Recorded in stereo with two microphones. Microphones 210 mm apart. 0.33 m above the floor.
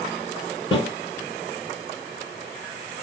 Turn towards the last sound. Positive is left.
turn(degrees=25)  # may be behind; listen again after turning